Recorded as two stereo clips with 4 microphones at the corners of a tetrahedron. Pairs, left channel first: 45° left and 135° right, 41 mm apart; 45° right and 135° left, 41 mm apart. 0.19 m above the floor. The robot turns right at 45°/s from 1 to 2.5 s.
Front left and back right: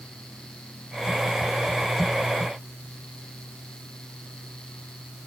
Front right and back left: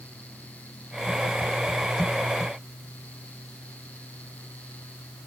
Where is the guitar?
No guitar in this recording.